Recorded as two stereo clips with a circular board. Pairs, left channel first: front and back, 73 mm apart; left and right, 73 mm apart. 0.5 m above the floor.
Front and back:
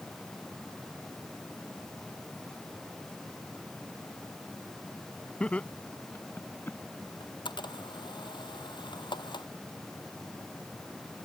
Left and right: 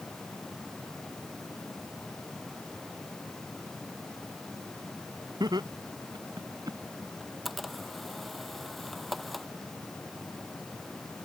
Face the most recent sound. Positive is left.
turn(degrees=0)